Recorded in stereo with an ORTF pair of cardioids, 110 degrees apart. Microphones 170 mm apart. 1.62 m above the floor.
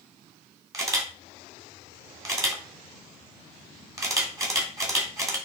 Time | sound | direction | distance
0.7 | a camera shutter | 20° right | 3 m